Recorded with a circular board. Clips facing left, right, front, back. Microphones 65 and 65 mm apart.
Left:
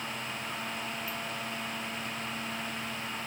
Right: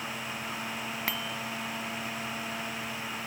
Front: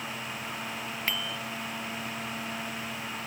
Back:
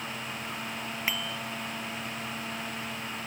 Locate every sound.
1.1 s a bicycle bell: 100° right